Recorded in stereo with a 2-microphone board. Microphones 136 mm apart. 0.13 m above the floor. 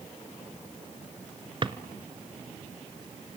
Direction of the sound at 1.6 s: 35° right (ahead or behind).